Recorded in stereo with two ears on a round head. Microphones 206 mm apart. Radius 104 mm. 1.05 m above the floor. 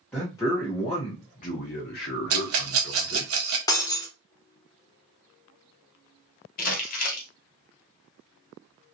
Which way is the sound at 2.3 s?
60° right (ahead or behind).